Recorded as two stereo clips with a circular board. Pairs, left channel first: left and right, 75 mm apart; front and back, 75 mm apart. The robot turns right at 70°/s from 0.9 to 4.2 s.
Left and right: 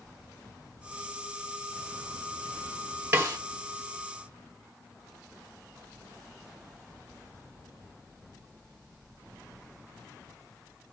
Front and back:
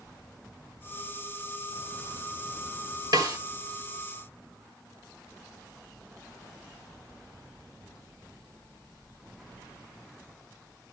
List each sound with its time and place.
3.1 s a snare drum: 150° right, 1.6 m; by 3.4 s 135° right, 1.6 m